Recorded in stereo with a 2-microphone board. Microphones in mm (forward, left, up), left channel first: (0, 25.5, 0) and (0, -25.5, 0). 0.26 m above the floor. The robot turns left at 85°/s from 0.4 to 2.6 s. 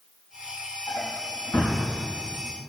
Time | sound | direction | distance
0.9 | a drawer | 80° left | 4.5 m